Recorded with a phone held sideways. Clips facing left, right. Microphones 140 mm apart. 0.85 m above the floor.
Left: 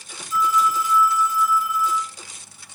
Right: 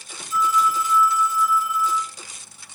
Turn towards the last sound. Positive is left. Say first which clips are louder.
# even
turn(degrees=-25)  # may be behind; listen again after turning